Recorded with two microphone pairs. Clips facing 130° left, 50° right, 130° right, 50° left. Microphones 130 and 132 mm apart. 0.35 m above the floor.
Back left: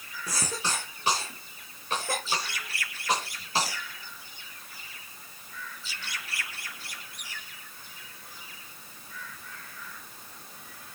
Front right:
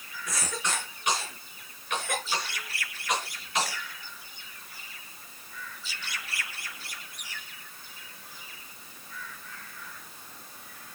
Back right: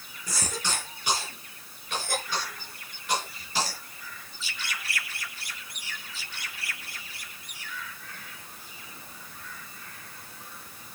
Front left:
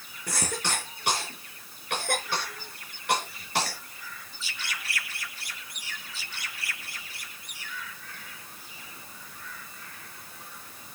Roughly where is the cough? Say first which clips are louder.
Back left 1 dB, front left 2 dB; left.